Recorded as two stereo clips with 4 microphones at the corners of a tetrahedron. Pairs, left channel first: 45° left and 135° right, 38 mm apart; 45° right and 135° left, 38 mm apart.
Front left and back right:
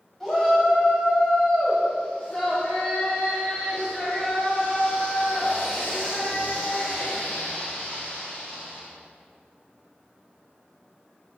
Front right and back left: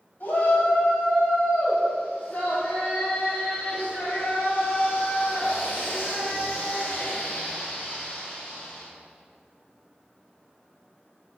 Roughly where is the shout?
Ahead right.